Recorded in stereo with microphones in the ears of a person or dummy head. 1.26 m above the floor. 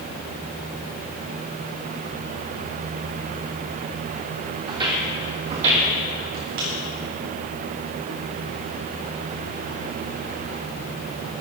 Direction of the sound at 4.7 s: 25° right (ahead or behind).